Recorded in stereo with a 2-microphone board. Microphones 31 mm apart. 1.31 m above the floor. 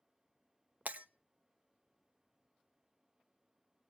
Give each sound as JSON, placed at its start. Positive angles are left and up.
{"t": 0.8, "sound": "breaking glass", "side_deg": -60, "distance_m": 0.8}